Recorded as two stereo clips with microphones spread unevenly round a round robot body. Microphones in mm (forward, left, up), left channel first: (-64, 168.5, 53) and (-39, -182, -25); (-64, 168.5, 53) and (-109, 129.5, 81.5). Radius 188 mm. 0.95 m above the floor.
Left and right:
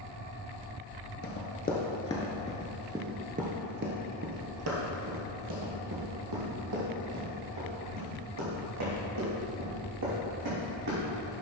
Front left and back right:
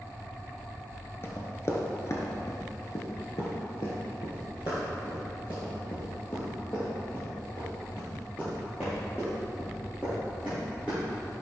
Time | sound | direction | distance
1.2 | running footsteps | 105° left | 1.1 m